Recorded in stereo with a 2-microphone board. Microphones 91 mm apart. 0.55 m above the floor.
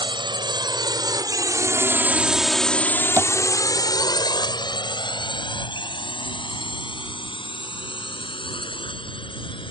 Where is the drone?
60° right (ahead or behind); by 9.7 s 70° left (ahead or behind).